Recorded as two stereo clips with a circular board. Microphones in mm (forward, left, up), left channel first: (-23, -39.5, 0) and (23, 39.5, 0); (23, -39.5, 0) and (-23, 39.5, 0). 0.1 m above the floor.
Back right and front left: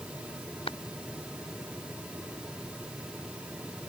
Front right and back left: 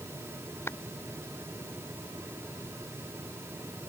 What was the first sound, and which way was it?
Tapping, 120° right.